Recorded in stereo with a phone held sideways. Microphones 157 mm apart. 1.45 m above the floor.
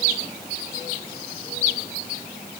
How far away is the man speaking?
No man speaking in this recording.